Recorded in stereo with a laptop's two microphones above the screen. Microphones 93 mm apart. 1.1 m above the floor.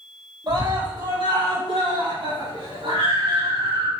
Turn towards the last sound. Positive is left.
turn(degrees=-80)